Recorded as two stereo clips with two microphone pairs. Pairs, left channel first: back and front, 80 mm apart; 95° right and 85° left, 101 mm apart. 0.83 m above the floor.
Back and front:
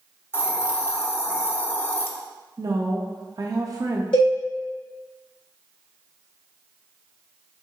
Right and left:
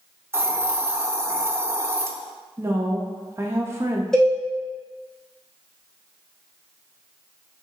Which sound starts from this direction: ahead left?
A woman speaking, at 2.6 s.